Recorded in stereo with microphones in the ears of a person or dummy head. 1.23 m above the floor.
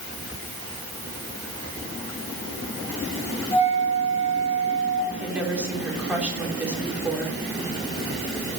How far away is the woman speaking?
About 3.5 m.